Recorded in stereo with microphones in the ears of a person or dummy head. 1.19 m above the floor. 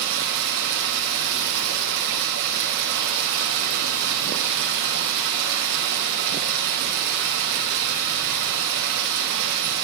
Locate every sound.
0.0 s running water: 55° right (ahead or behind), 1.9 m